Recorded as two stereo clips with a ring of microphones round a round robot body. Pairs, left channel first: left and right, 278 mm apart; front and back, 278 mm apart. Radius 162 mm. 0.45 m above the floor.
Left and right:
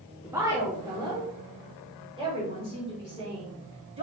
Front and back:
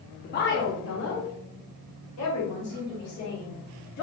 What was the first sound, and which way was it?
A woman speaking, 15° right.